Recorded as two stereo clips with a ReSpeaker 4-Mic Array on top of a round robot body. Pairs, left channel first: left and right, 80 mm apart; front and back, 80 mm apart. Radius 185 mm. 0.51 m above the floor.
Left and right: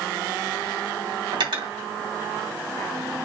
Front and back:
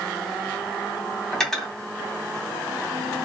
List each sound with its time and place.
1.3 s cutlery clinking: 85° right, 1.8 m